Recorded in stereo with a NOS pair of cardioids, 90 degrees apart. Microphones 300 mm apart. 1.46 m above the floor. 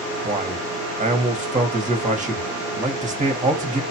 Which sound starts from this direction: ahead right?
A man speaking, at 0.2 s.